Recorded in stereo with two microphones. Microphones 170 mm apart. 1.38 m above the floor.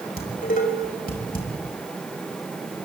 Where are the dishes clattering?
60° left (ahead or behind), 5 m.